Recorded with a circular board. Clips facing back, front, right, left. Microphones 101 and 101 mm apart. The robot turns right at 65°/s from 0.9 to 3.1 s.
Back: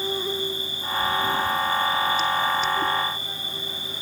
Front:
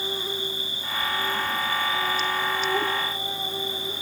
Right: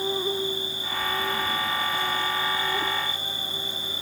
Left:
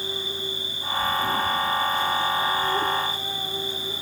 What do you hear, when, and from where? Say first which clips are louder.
0.0 s an insect: back 4 dB, right 6 dB; 135° right, 3 m; by 4.0 s 10° left, 3 m